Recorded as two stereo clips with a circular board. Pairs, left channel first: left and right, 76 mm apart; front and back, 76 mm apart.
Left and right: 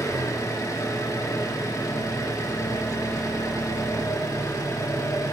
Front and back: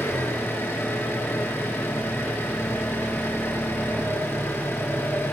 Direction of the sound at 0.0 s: 60° left.